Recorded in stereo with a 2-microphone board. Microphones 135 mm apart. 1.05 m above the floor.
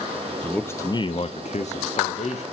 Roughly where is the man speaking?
Centre.